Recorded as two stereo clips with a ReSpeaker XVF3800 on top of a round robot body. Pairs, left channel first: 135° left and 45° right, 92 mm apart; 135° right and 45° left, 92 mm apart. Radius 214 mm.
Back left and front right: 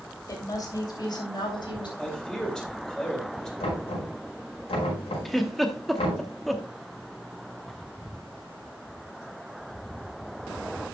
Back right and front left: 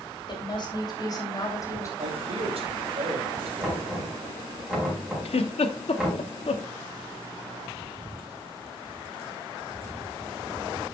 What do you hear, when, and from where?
0.3 s a woman speaking: 175° right, 3 m; by 1.9 s 170° left, 3 m
2.0 s a man speaking: 50° left, 2.5 m
3.6 s knocking: 130° left, 4.5 m
5.2 s a giggle: 140° right, 0.9 m